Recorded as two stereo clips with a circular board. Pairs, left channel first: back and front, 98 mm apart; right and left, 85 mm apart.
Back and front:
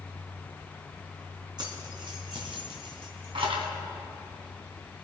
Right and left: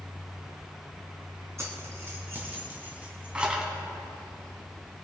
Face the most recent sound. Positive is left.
turn(degrees=10)